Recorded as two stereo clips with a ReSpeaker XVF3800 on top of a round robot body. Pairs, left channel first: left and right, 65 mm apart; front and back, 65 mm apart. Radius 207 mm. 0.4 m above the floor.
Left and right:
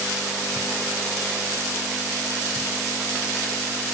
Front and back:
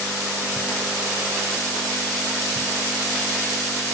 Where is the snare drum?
No snare drum in this recording.